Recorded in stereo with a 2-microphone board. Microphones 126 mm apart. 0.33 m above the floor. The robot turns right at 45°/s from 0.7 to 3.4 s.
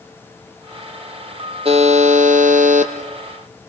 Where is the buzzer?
130° right, 2.5 m; by 2.9 s 75° right, 2.5 m.